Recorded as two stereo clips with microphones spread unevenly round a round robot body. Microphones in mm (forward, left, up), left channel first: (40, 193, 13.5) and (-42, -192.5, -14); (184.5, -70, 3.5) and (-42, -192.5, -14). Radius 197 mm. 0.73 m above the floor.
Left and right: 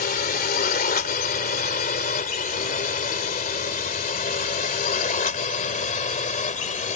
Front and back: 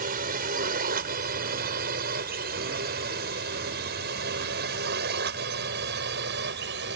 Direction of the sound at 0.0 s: 145° left.